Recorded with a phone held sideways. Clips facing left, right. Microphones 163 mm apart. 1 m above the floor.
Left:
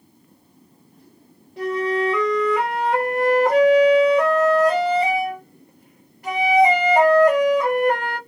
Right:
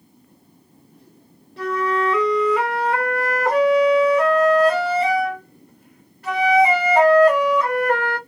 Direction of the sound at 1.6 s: 15° left (ahead or behind).